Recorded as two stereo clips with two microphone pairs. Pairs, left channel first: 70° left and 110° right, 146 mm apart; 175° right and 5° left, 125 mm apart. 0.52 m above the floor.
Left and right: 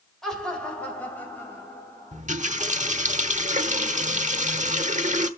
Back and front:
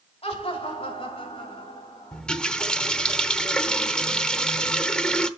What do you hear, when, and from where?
0.2 s laughter: 155° left, 2 m; by 2.2 s 140° left, 3 m
2.1 s a running tap: 90° right, 0.9 m